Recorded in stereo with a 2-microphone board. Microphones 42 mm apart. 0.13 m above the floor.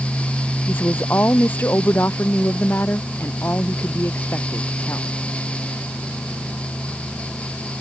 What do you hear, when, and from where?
0.7 s a woman speaking: 55° left (ahead or behind); by 5.1 s 60° left (ahead or behind)